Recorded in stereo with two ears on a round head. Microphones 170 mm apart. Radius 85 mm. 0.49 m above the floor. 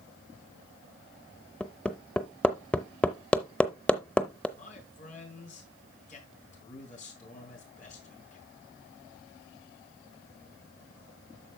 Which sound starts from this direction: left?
A man speaking, at 4.6 s.